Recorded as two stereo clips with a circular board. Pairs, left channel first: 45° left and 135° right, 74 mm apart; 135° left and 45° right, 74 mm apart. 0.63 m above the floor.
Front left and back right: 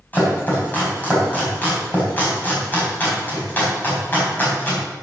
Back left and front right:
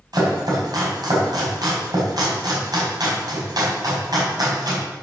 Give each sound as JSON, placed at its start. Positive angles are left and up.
{"t": 0.1, "sound": "chopping", "azimuth_deg": -20, "distance_m": 4.5}